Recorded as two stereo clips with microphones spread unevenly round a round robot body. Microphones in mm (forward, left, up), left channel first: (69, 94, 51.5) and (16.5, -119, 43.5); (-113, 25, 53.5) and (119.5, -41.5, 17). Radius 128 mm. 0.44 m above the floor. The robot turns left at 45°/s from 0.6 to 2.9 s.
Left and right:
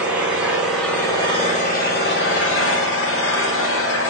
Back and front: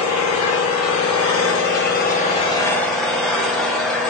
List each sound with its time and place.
0.0 s an engine running: 175° left, 1.0 m; by 4.1 s 70° left, 1.0 m